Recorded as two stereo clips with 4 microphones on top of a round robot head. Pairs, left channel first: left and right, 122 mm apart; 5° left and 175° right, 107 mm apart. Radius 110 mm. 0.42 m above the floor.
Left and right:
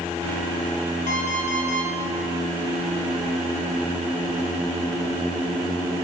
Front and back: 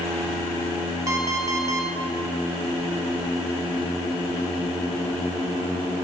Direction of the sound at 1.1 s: 125° left.